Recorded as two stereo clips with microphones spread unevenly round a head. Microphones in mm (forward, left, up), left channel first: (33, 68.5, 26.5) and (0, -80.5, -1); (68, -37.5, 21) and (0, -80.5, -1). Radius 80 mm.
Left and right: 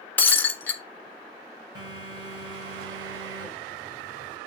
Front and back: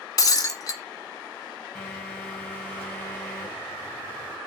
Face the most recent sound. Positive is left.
turn(degrees=-40)